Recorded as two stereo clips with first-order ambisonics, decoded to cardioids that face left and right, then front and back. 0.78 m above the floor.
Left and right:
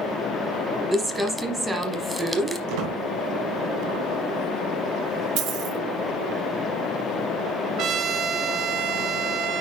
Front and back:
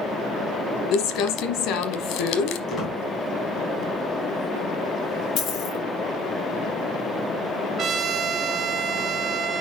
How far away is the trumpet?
About 0.8 m.